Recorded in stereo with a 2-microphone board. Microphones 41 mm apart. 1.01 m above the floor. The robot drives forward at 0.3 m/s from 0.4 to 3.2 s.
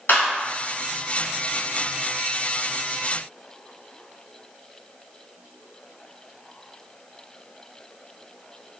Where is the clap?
70° left (ahead or behind), 2.0 m.